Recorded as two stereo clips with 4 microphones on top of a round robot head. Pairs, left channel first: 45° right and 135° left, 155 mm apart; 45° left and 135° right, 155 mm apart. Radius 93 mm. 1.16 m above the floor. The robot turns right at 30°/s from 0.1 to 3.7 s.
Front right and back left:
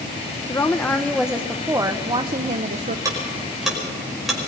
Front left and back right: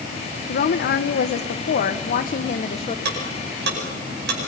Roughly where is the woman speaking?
Ahead left.